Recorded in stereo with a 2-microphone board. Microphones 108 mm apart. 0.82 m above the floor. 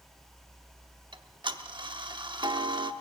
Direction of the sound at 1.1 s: 45° right (ahead or behind).